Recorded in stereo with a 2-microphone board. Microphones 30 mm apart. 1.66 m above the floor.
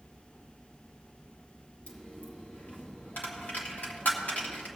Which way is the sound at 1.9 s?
60° left (ahead or behind).